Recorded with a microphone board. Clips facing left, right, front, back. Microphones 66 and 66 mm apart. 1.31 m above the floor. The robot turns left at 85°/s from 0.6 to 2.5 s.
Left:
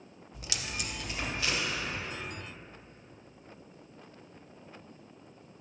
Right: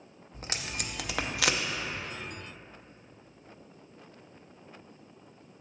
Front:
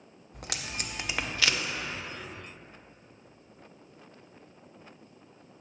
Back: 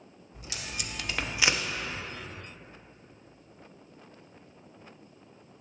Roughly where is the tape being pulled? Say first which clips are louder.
Right 1 dB, front 2 dB; ahead right.